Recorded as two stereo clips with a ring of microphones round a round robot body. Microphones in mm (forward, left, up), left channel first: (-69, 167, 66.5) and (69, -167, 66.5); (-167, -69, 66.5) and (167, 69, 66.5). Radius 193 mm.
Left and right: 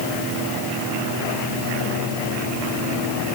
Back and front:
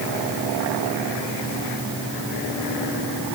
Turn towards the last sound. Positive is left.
No sound to turn to.